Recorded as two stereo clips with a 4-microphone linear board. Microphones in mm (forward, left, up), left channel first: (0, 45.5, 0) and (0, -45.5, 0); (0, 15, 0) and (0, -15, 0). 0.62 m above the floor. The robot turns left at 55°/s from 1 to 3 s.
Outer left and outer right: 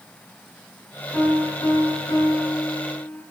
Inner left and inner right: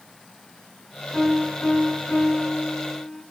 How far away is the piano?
About 5 m.